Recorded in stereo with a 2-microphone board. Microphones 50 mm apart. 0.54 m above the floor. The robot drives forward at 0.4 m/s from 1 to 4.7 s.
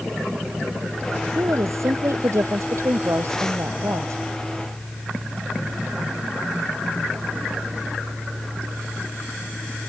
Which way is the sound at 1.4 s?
70° right (ahead or behind).